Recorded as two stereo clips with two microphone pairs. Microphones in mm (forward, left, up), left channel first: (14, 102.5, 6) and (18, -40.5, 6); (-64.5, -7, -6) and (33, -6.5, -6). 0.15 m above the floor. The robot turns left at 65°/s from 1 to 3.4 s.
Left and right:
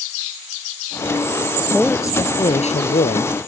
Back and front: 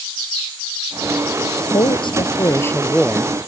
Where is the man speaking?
Straight behind; by 3.4 s 70° left.